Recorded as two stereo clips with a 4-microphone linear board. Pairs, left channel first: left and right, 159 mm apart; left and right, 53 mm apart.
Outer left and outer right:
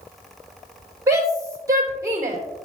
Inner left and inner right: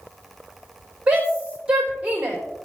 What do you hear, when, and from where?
1.1 s a shout: 20° right (ahead or behind), 3.5 m